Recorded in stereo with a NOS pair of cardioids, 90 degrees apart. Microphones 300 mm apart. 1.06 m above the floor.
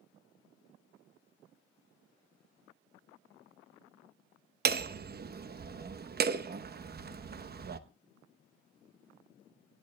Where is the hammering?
35° right, 0.9 m.